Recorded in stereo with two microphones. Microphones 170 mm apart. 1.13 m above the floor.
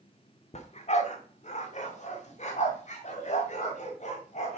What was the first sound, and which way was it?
A dog barking, 45° left (ahead or behind).